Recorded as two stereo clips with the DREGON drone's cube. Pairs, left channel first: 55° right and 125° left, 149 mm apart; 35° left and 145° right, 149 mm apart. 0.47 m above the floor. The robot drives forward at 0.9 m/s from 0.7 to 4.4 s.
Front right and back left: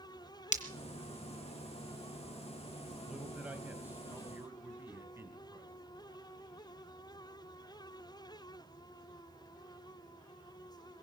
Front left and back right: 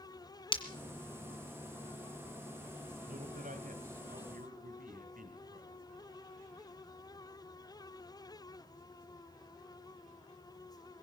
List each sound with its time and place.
0.5 s breaking glass: 20° right, 1.9 m
3.1 s a man speaking: 150° right, 2 m; by 5.7 s 160° right, 3 m